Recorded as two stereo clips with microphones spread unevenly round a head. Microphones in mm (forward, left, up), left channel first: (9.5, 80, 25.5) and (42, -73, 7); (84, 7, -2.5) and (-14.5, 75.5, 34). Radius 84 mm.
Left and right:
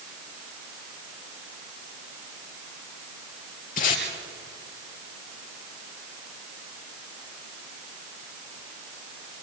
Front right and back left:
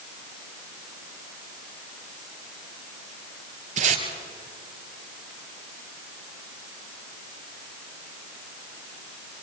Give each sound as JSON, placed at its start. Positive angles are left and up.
{"t": 3.8, "sound": "tape being pulled", "azimuth_deg": 145, "distance_m": 4.0}